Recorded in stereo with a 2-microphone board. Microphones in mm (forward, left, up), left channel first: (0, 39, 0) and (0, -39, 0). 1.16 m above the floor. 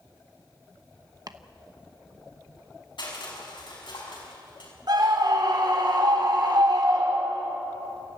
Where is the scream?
65° right (ahead or behind), 4.5 m.